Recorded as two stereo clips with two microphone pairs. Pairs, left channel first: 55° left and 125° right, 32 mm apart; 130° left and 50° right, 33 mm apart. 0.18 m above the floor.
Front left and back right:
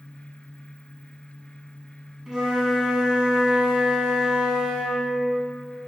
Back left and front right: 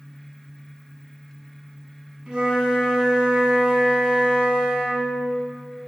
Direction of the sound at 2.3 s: 70° right.